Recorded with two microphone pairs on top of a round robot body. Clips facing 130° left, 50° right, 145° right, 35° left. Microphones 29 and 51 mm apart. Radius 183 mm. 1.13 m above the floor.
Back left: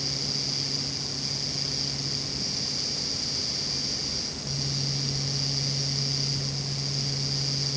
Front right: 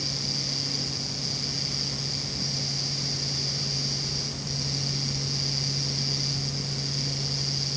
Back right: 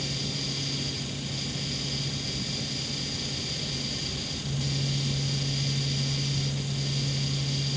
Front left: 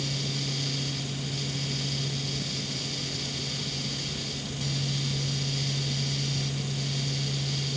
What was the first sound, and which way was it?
Only background noise.